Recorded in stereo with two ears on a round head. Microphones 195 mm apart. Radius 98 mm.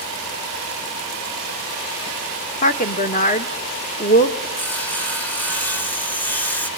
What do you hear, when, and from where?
2.6 s a woman speaking: 35° left (ahead or behind), 1.3 m
4.6 s sawing: 10° left (ahead or behind), 1.0 m